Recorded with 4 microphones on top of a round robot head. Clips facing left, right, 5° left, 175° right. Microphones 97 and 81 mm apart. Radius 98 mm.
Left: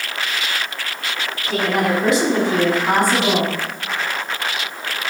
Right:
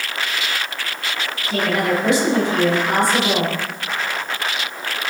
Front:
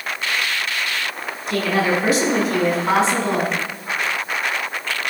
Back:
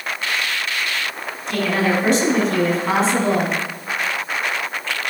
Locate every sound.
1.5 s a woman speaking: 90° left, 7 m; by 3.5 s 100° left, 6.5 m